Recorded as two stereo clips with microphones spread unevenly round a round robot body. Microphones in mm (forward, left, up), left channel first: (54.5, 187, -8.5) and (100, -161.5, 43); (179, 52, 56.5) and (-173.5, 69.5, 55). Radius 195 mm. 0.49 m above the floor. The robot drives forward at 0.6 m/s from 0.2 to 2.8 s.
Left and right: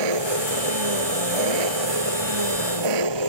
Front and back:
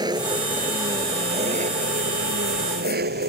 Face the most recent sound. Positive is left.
turn(degrees=-115)